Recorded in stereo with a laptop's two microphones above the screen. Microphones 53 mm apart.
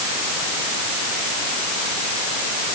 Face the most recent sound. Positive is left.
No sound to turn to.